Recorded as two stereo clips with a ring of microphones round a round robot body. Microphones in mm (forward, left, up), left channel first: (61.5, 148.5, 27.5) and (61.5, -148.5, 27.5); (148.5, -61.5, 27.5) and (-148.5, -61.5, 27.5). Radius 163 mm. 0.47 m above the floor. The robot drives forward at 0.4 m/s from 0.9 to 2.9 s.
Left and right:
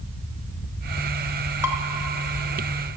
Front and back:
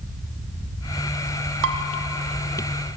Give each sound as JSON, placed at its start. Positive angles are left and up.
{"t": 1.6, "sound": "dishes clattering", "azimuth_deg": -170, "distance_m": 1.2}